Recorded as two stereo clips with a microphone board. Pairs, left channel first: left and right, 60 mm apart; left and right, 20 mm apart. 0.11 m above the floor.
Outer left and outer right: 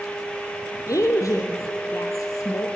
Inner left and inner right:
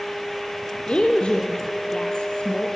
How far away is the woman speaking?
About 2.5 m.